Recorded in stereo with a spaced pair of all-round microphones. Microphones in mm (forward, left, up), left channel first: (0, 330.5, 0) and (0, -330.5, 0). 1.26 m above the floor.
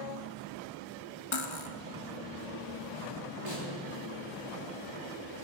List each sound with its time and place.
1.3 s cutlery clinking: 45° left (ahead or behind), 1.0 m
3.5 s a snare drum: 50° right (ahead or behind), 4.5 m